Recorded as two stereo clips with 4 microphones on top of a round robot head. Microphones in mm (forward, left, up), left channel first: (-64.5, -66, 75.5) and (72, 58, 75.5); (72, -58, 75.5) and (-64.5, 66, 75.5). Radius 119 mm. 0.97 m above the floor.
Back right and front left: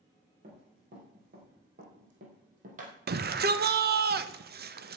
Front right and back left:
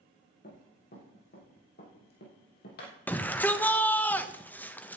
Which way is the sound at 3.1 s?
35° left.